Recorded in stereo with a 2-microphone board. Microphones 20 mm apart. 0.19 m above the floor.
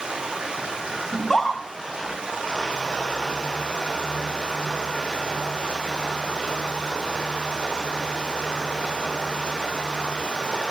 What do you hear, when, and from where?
0.0 s running water: 65° right (ahead or behind), 3 m
1.1 s a scream: 25° left (ahead or behind), 1.6 m